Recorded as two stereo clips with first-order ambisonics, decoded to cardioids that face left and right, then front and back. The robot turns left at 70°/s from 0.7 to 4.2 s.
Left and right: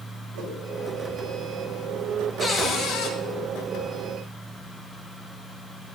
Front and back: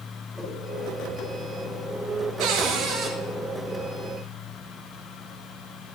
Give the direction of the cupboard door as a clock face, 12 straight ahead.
6 o'clock.